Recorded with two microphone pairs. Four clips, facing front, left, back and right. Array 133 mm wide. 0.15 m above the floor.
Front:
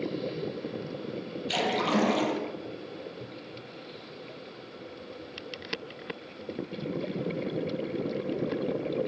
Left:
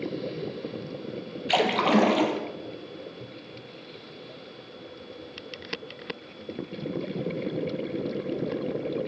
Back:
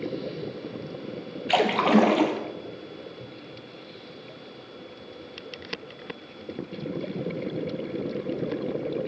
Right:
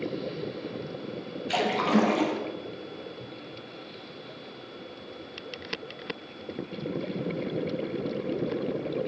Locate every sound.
1.5 s a splash: 145° left, 1.2 m